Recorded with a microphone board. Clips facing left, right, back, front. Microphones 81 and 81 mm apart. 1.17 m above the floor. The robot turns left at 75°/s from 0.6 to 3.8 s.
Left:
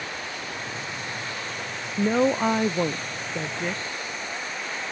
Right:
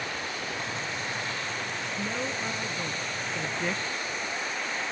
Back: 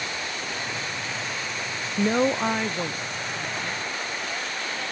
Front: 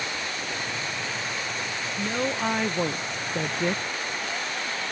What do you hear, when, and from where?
2.0 s a woman speaking: 135° left; by 3.8 s 5° right